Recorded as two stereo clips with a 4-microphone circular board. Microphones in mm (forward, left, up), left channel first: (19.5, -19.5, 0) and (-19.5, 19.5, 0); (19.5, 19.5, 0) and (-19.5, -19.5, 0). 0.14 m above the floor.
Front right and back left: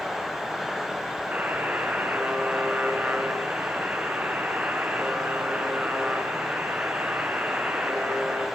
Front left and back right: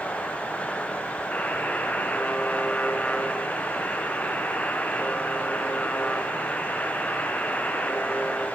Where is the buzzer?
90° left, 1.8 m.